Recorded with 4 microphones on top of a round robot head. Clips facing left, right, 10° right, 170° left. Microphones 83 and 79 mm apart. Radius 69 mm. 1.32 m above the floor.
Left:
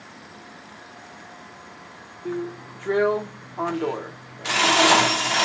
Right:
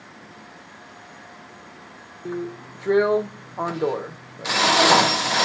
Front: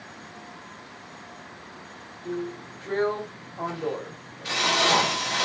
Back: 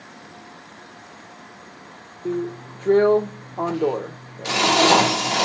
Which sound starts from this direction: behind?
A drill, at 2.2 s.